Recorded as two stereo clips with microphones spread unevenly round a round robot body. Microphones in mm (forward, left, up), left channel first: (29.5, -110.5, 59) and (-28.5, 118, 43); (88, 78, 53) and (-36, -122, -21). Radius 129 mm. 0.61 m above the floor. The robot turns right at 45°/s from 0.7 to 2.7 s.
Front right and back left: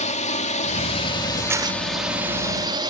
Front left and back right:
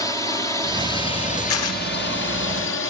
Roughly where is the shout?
No shout in this recording.